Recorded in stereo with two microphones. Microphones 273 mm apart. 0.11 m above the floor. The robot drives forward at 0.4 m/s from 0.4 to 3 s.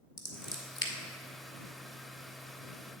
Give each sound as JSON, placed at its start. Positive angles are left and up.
{"t": 0.2, "sound": "scissors", "side_deg": 55, "distance_m": 1.2}